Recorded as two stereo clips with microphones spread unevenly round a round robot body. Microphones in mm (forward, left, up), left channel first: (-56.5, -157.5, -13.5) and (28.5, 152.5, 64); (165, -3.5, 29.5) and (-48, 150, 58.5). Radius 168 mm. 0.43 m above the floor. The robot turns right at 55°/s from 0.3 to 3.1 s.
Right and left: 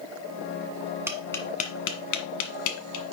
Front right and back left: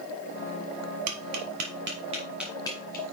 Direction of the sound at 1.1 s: 155° left.